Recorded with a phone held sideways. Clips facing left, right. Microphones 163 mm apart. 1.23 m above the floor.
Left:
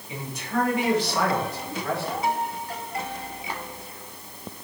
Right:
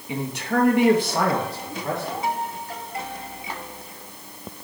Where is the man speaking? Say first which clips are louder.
Right 5 dB; 80° right, 1.8 m; by 2.2 s 15° right (ahead or behind), 2.5 m.